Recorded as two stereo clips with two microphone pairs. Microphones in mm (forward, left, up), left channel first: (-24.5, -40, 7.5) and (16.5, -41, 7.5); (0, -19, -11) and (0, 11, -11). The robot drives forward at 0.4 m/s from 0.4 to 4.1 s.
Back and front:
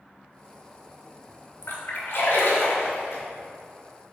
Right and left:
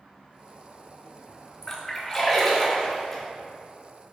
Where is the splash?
165° right, 1.3 m; by 3.2 s 170° right, 1.9 m.